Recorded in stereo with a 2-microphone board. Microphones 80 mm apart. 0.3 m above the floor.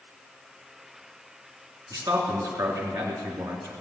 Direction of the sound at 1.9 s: 50° right (ahead or behind).